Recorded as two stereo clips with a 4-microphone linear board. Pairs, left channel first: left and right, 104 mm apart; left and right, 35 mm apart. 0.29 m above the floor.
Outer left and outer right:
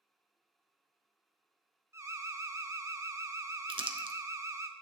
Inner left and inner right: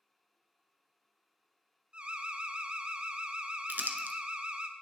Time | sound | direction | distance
1.9 | an alarm | 30° right (ahead or behind) | 0.8 m
3.7 | crumpling | 60° right (ahead or behind) | 0.9 m